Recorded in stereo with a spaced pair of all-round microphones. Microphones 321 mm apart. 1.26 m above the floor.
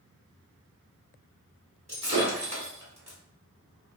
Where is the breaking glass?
20° right (ahead or behind), 1.3 m.